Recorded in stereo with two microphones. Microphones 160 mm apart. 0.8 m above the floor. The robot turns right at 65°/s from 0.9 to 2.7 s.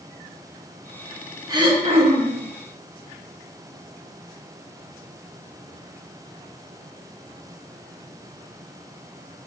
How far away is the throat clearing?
About 0.8 m.